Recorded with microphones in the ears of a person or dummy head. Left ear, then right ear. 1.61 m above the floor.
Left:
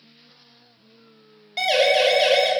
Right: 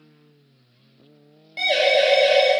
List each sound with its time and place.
1.6 s a siren: 25° left (ahead or behind), 5 m